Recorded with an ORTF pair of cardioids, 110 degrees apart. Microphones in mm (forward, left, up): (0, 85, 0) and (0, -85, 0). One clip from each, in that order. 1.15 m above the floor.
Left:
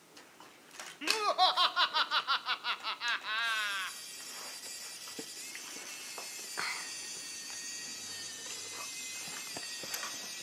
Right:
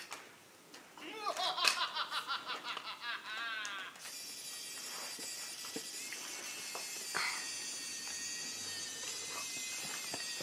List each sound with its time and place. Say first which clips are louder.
1.0 s laughter: left 10 dB; 40° left, 0.7 m